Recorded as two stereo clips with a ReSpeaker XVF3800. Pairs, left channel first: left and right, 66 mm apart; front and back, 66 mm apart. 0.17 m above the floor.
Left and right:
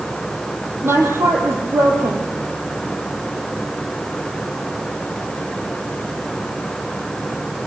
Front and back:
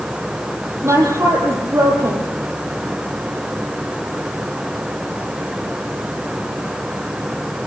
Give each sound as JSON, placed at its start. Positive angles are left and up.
{"t": 0.8, "sound": "a woman speaking", "azimuth_deg": -140, "distance_m": 5.0}